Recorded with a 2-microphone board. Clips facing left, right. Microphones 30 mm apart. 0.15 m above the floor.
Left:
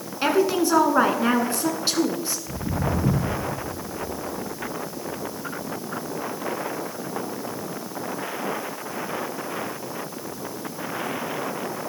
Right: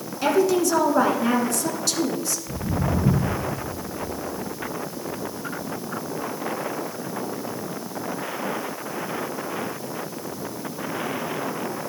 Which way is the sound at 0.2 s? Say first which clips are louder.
Right 1 dB; 30° left (ahead or behind).